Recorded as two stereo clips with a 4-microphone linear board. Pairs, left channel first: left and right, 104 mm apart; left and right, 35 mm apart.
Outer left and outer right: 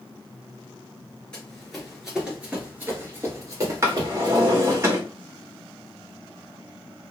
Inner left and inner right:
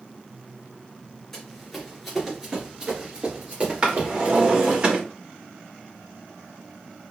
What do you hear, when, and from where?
1.3 s running footsteps: 10° left (ahead or behind), 1.6 m; by 4.8 s 45° right (ahead or behind), 2 m
3.8 s a drawer: 25° right (ahead or behind), 1.3 m